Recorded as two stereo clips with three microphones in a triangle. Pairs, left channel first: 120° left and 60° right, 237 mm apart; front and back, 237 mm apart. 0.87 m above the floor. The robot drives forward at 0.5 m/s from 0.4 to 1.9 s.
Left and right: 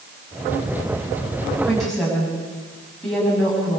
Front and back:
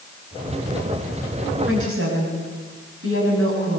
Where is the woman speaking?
150° right, 7.5 m.